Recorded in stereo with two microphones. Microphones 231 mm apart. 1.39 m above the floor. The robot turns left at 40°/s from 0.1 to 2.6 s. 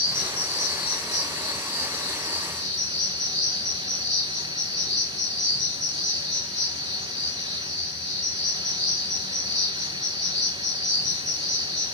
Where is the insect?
165° left, 1.1 m; by 11.9 s 65° left, 1.1 m.